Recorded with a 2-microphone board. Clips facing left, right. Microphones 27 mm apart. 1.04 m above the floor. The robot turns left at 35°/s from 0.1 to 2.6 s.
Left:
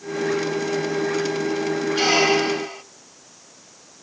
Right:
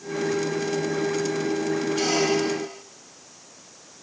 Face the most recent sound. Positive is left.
turn(degrees=35)  # may be behind; listen again after turning